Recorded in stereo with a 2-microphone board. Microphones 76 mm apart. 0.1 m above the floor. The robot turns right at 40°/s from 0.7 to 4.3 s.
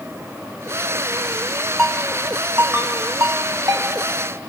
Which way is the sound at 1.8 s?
5° left (ahead or behind).